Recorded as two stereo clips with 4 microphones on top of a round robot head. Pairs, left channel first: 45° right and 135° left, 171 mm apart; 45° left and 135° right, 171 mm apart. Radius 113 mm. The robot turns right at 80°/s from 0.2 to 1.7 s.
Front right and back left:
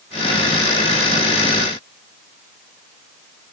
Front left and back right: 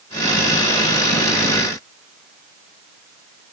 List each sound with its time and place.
Only background noise.